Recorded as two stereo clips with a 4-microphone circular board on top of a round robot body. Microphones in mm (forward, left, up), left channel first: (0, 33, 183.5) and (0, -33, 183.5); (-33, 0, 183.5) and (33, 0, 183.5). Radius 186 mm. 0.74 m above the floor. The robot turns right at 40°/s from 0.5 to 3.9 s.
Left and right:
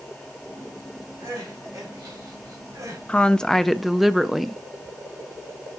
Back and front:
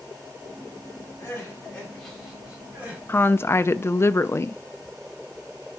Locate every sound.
1.2 s crying: 130° right, 4 m; by 3.0 s 60° right, 4 m
3.1 s a woman speaking: 150° left, 0.6 m; by 4.6 s straight behind, 0.6 m